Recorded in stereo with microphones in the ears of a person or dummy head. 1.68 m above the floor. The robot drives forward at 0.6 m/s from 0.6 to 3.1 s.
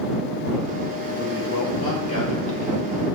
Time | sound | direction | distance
1.2 | a man speaking | 35° left (ahead or behind) | 2.5 m